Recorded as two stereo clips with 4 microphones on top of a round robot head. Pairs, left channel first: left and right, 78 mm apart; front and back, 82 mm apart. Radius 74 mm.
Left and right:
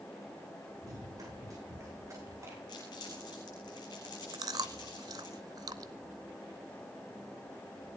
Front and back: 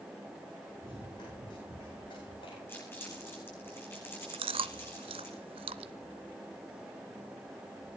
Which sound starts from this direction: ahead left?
Crumpling, at 2.7 s.